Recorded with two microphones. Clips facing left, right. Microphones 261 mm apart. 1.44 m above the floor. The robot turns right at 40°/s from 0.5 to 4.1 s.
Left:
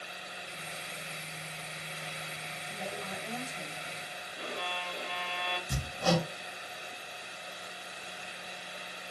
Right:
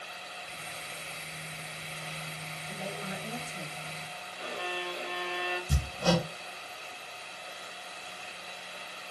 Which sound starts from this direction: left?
A violin, at 4.4 s.